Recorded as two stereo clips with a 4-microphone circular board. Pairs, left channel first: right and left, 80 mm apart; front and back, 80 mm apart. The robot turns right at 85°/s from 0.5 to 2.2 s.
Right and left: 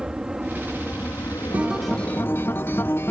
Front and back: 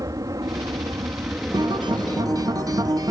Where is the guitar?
155° left; by 3.1 s 150° right.